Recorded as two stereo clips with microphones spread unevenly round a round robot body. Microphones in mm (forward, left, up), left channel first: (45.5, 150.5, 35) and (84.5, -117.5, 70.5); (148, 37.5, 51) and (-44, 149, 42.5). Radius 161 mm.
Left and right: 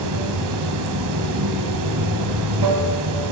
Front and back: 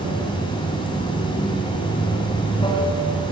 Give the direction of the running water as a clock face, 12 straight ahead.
3 o'clock.